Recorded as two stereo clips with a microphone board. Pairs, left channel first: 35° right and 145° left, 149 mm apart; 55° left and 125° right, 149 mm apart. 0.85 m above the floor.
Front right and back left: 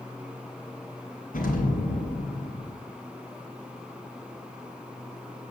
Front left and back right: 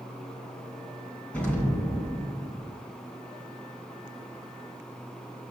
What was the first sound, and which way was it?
An explosion, 25° right.